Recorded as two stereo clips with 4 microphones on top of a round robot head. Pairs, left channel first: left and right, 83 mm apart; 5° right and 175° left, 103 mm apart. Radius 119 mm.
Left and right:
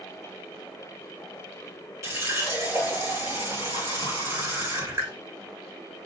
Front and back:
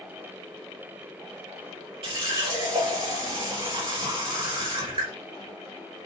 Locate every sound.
2.0 s a running tap: 150° right, 3 m